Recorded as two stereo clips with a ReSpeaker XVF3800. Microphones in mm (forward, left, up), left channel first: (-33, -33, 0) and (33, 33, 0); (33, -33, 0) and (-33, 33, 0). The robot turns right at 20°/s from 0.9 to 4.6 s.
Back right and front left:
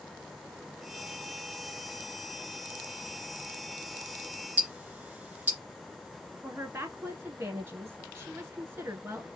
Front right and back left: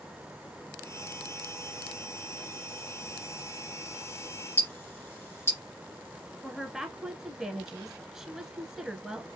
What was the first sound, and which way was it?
Ticking, 20° right.